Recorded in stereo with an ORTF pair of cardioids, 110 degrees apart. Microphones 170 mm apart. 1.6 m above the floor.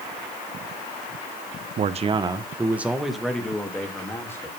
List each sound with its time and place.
1.8 s a man speaking: 50° right, 1.5 m; by 4.5 s 15° left, 4 m